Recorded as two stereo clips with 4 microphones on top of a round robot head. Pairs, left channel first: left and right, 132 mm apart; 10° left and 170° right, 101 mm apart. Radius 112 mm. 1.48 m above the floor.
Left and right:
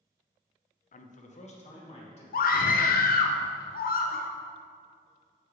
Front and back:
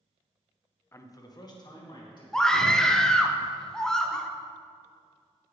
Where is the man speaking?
75° left, 0.6 m; by 2.2 s 55° left, 2.5 m.